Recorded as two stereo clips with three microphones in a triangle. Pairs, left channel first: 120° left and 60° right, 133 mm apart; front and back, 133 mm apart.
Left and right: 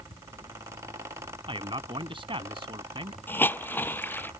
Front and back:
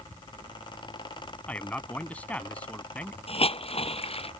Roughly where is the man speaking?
Right.